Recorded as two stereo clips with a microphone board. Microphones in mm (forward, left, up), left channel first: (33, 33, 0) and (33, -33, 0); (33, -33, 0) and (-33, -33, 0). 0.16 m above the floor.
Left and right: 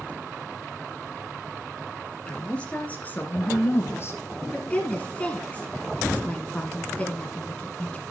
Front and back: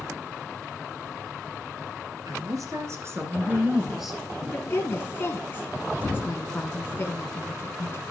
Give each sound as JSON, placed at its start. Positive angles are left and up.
{"t": 2.3, "sound": "a woman speaking", "azimuth_deg": 165, "distance_m": 3.0}
{"t": 4.5, "sound": "a woman speaking", "azimuth_deg": 35, "distance_m": 1.9}